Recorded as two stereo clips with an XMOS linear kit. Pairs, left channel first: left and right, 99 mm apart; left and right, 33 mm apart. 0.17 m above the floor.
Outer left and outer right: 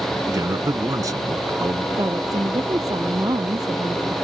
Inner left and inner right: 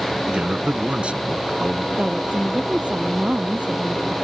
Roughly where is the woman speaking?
Right.